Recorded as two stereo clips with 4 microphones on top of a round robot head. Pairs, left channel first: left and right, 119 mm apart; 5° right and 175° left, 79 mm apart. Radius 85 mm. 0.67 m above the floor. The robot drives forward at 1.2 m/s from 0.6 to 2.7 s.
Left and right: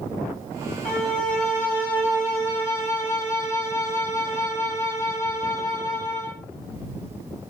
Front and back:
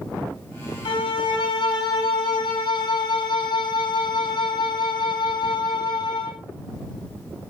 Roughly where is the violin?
Ahead.